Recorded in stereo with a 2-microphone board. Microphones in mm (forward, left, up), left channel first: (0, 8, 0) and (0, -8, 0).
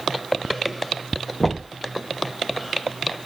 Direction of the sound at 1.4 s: 50° left (ahead or behind).